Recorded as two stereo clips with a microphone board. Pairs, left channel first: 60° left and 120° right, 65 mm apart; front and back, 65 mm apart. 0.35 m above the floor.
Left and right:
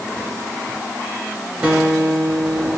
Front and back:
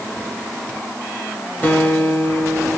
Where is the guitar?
45° right, 1.5 m.